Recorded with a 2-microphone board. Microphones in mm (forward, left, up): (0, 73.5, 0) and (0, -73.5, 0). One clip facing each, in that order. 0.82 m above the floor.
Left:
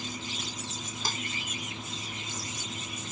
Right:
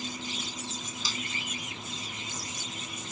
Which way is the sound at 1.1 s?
55° left (ahead or behind).